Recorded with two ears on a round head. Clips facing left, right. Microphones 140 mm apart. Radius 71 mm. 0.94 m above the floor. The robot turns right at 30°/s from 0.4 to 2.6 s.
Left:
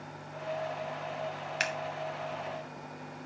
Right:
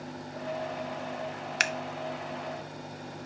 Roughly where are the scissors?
Right.